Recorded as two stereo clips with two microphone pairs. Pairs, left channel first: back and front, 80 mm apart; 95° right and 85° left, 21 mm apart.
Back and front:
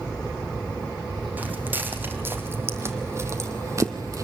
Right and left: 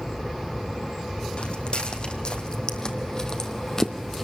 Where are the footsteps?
70° right, 3.5 m; by 4.2 s 25° right, 2 m.